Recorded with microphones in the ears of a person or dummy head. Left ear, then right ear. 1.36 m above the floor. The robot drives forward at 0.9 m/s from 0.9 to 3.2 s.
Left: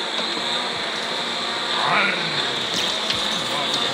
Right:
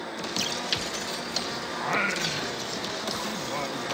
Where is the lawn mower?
65° left (ahead or behind).